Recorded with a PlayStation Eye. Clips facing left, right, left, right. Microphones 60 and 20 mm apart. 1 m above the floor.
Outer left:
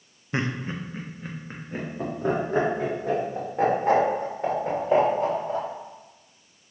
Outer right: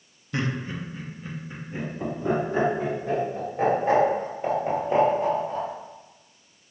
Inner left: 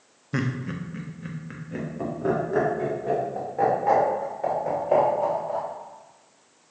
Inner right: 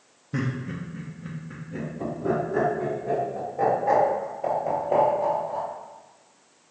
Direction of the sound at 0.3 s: 25° left (ahead or behind).